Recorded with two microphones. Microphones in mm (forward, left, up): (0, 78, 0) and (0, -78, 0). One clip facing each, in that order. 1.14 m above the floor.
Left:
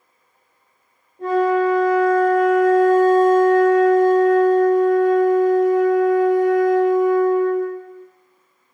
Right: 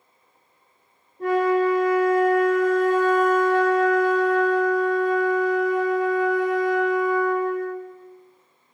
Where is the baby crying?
No baby crying in this recording.